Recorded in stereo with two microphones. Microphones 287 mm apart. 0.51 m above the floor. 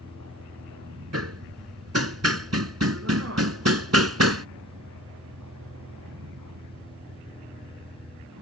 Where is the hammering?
60° right (ahead or behind).